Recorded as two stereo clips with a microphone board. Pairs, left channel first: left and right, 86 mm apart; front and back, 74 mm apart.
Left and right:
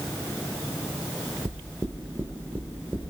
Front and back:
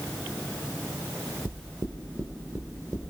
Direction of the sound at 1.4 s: 150° right.